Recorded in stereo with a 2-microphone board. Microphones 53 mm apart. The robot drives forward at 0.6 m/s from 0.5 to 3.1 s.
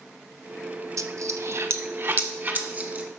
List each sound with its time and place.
1.0 s a dropped coin: 75° right (ahead or behind), 0.7 m; by 3.0 s 30° right (ahead or behind), 1.5 m